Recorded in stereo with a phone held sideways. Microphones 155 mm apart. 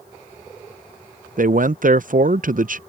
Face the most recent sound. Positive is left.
turn(degrees=-60)  # may be behind; listen again after turning